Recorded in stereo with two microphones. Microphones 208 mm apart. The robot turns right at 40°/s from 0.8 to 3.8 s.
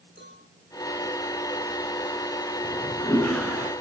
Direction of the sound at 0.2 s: 55° right (ahead or behind).